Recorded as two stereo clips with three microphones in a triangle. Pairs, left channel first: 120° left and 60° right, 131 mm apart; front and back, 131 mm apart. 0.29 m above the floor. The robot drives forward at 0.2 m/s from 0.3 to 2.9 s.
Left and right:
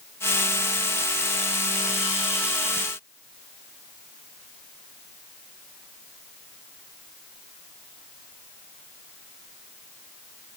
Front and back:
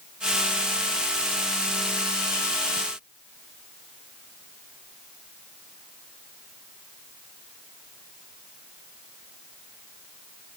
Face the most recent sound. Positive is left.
No sound to turn to.